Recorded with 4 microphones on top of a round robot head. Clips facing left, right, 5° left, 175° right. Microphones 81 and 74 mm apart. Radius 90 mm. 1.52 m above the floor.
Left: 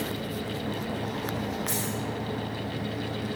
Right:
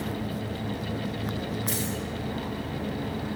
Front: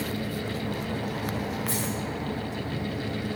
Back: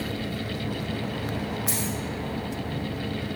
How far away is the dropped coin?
About 5.5 m.